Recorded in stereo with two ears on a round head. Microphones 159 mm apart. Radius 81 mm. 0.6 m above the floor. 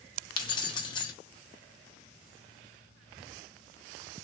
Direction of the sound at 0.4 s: 25° left (ahead or behind).